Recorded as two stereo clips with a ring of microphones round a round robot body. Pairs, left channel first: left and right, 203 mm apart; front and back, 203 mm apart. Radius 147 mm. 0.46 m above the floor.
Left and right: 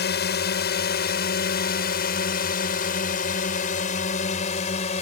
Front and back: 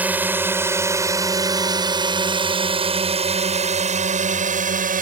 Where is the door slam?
No door slam in this recording.